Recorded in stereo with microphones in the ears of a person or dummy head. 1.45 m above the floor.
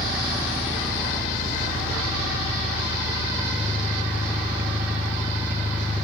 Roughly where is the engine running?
Centre.